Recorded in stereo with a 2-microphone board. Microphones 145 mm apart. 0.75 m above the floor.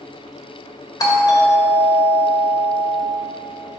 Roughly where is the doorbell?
Left.